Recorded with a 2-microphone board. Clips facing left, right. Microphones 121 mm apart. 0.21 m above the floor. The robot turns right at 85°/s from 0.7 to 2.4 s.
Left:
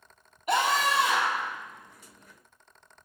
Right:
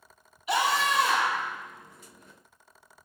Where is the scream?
130° left, 6.5 m; by 1.5 s 165° right, 6.5 m.